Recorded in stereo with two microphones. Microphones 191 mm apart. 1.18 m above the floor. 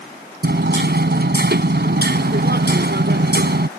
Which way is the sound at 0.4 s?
65° right (ahead or behind).